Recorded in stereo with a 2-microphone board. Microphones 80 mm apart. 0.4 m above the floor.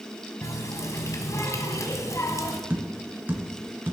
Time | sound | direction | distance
0.4 | a running tap | 45° left (ahead or behind) | 1.8 m
2.7 | tapping | 25° right (ahead or behind) | 2.5 m